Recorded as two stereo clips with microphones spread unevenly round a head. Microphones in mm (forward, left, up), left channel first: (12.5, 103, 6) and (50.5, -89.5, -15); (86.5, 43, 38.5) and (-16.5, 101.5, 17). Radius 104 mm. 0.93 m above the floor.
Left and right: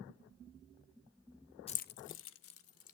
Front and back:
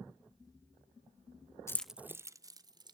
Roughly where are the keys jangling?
Ahead left.